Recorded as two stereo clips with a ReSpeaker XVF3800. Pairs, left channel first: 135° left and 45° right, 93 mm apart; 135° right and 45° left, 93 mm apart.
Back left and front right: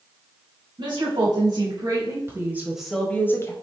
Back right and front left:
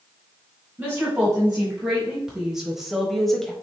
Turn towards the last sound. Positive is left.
turn(degrees=145)